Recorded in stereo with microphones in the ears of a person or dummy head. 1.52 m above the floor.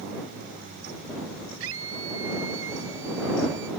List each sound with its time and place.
1.6 s a scream: 70° right (ahead or behind); by 3.7 s 60° right (ahead or behind)